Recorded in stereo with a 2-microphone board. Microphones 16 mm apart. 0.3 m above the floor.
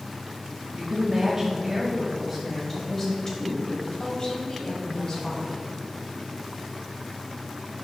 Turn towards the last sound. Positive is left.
turn(degrees=45)  # may be behind; listen again after turning